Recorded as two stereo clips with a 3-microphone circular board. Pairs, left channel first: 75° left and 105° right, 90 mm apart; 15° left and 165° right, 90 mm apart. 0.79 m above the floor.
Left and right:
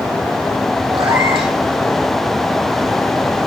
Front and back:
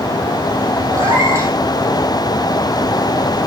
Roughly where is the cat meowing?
Right.